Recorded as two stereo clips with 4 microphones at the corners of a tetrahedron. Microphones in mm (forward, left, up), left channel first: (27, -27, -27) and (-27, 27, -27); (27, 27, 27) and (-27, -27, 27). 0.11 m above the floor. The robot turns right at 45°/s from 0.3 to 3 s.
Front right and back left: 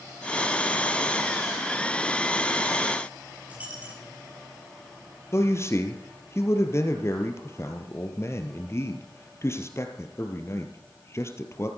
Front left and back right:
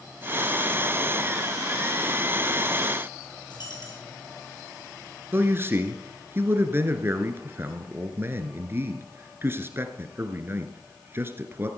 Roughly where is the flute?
I don't hear a flute.